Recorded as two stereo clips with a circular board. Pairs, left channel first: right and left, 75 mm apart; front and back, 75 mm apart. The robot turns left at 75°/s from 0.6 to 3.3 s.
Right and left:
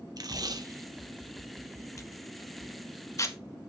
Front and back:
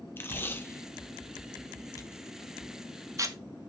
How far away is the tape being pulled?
About 0.9 m.